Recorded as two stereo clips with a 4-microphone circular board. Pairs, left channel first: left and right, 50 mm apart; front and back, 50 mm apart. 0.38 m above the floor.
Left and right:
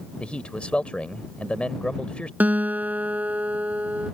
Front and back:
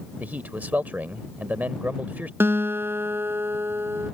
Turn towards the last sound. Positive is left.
turn(degrees=-145)